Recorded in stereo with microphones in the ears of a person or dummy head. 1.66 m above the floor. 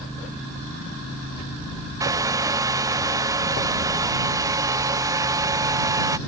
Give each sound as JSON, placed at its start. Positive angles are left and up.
{"t": 2.0, "sound": "a hair dryer", "side_deg": -15}